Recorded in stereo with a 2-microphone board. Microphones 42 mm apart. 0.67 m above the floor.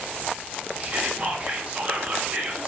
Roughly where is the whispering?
Right.